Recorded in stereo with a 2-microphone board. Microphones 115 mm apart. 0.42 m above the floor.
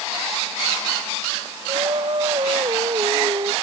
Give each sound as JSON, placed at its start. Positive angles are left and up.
{"t": 1.7, "sound": "singing", "side_deg": -45}